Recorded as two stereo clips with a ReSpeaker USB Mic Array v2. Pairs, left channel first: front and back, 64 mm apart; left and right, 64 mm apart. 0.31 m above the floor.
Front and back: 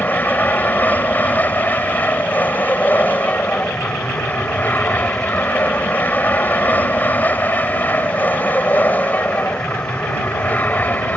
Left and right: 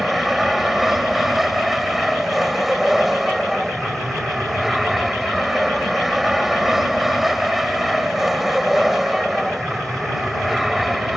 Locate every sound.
0.0 s an aircraft: 5° right